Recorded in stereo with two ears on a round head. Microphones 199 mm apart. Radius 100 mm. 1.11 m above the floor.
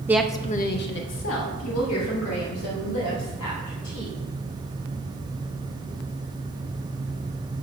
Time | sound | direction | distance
0.1 | a woman speaking | 10° right (ahead or behind) | 0.7 m